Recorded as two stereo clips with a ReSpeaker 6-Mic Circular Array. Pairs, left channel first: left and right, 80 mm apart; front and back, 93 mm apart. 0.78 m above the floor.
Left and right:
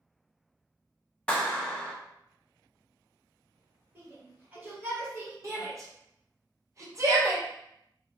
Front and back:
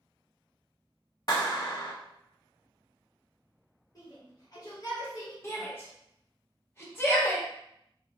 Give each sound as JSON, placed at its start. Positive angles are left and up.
{"t": 1.3, "sound": "a clap", "azimuth_deg": 15, "distance_m": 0.8}
{"t": 4.0, "sound": "a shout", "azimuth_deg": -35, "distance_m": 1.5}
{"t": 5.4, "sound": "a shout", "azimuth_deg": -55, "distance_m": 1.0}